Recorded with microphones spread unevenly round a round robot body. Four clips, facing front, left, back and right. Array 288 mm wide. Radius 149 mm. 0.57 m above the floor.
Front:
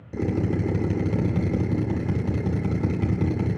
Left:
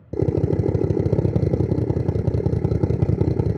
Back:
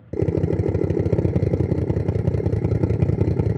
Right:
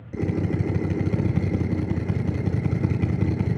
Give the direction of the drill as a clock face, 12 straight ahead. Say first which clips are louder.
Left 5 dB, back 3 dB; 8 o'clock.